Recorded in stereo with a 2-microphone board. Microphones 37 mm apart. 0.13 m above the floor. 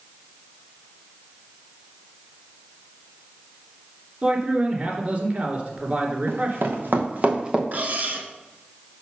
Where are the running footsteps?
75° right (ahead or behind), 2.5 m; by 7.6 s 20° right (ahead or behind), 1.5 m.